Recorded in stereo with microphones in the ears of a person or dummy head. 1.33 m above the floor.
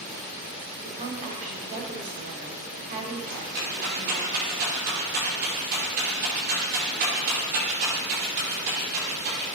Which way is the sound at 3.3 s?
45° right (ahead or behind).